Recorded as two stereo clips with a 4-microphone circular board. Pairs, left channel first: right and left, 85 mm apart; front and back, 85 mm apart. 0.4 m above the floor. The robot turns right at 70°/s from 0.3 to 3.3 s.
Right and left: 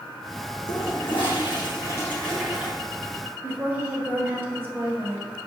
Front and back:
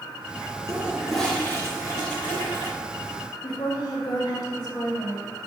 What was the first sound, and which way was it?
A toilet flushing, 120° right.